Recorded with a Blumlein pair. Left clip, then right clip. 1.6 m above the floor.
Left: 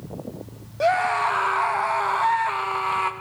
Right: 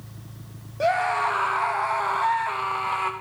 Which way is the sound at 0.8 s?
5° left.